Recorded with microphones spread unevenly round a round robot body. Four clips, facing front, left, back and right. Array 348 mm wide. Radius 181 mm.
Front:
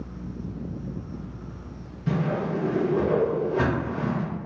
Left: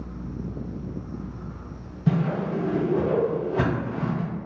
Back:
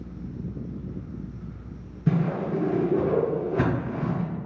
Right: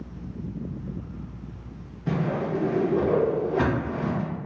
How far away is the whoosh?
About 1.5 m.